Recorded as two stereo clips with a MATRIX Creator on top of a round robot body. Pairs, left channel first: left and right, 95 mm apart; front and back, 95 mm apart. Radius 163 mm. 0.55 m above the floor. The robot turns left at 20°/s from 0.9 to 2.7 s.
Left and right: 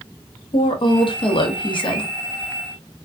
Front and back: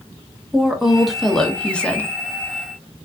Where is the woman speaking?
95° left, 1.0 m; by 2.1 s 70° left, 1.0 m.